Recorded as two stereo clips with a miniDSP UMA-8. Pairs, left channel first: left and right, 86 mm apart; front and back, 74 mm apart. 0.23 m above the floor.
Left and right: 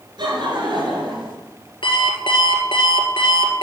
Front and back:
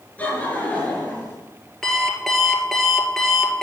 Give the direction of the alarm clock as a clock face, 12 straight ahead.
9 o'clock.